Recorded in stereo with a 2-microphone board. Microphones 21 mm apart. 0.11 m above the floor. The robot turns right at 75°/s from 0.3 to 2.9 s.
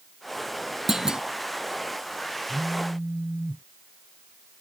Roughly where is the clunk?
Centre.